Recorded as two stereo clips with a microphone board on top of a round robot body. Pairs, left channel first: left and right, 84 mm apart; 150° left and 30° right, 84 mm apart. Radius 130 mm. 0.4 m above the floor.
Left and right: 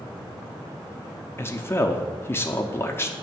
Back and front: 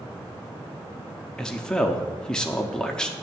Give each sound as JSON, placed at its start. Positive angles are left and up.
{"t": 1.4, "sound": "a man speaking", "azimuth_deg": 80, "distance_m": 0.9}